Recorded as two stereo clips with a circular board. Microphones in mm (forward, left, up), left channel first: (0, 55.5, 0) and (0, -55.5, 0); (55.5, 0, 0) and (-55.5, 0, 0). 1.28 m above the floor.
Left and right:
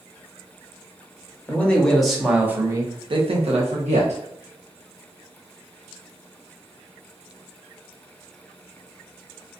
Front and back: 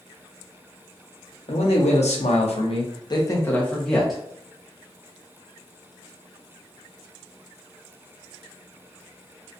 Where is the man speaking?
15° left, 1.0 m; by 4.2 s 90° right, 0.9 m.